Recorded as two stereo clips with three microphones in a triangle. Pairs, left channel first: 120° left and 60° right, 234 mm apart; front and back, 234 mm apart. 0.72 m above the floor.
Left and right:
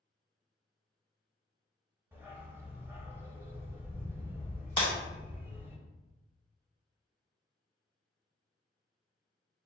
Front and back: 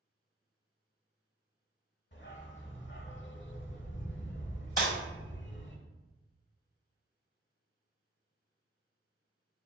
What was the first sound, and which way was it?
A dog barking, 15° left.